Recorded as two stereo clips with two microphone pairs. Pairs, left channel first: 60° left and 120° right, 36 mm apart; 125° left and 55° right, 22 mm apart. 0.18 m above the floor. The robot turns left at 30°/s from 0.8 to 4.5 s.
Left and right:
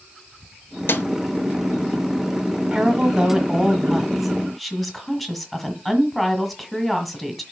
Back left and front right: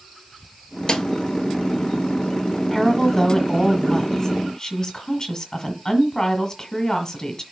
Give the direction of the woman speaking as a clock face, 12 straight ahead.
6 o'clock.